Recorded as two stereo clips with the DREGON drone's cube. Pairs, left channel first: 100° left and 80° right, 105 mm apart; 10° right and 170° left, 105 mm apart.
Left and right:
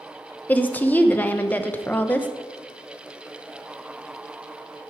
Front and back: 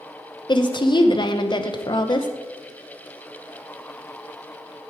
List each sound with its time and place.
0.5 s a woman speaking: 25° left, 0.7 m